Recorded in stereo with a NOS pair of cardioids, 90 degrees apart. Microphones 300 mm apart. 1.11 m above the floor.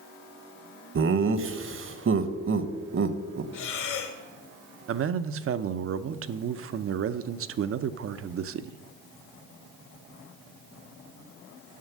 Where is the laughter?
40° right, 1.1 m.